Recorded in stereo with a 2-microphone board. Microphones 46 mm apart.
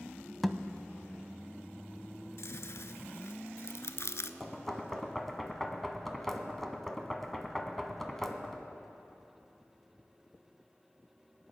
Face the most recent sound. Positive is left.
turn(degrees=5)  # may be behind; listen again after turning